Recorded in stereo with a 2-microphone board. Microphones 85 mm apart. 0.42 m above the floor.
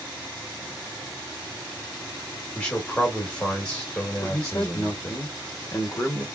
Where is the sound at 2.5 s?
10° left (ahead or behind), 1.3 m.